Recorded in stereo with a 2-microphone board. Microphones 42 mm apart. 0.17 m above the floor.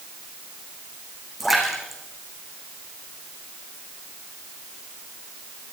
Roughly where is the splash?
Centre.